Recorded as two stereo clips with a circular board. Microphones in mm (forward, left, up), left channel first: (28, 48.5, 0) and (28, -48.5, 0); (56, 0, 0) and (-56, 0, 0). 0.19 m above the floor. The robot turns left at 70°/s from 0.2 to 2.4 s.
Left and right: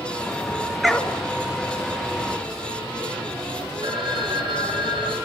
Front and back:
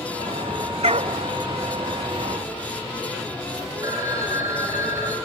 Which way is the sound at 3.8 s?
120° right.